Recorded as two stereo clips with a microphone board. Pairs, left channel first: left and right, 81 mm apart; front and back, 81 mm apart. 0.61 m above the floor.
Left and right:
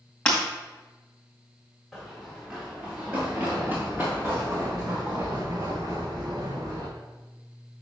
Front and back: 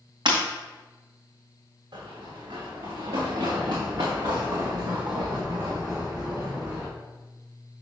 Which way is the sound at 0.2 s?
165° left.